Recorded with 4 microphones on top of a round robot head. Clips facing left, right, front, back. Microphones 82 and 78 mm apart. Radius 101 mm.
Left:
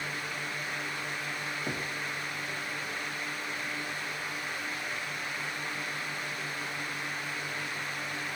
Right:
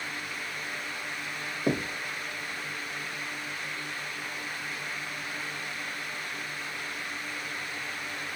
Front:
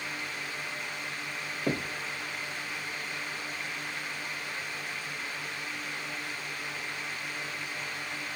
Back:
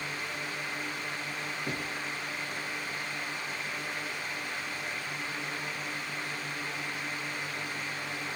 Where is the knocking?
65° right, 0.6 m.